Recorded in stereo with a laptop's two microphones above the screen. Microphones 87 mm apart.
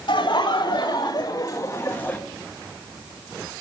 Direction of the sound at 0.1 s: 65° left (ahead or behind).